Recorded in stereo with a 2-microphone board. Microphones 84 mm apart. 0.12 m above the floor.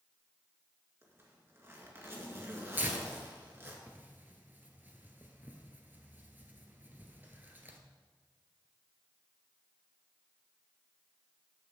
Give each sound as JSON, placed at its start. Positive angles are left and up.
{"t": 1.0, "sound": "a zipper", "side_deg": -30, "distance_m": 1.8}
{"t": 2.8, "sound": "tearing paper", "side_deg": -25, "distance_m": 1.2}